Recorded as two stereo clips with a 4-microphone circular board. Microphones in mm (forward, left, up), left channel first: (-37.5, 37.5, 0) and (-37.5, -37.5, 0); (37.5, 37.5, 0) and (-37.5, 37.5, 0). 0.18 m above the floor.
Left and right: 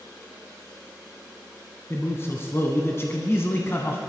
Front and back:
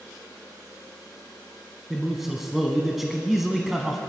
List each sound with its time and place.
1.9 s a man speaking: 95° left, 1.2 m